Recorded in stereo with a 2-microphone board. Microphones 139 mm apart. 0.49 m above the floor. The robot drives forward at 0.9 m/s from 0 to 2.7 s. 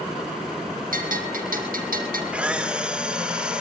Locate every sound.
0.9 s a bell: 75° right (ahead or behind), 4 m; by 2.2 s 85° right, 4 m
2.3 s a camera shutter: 10° right (ahead or behind), 1.3 m; by 3.6 s 5° right (ahead or behind), 1.5 m